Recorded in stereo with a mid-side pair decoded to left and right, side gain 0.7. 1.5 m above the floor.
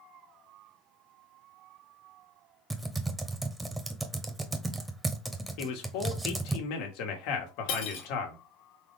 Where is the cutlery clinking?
65° left, 1.7 m.